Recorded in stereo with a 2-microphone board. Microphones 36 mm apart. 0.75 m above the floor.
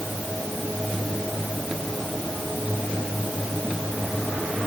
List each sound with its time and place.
Only background noise.